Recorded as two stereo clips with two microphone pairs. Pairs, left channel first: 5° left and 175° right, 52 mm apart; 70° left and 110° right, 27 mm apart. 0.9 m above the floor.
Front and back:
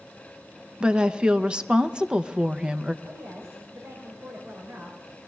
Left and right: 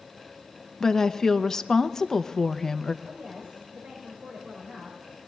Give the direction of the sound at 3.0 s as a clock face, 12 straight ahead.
4 o'clock.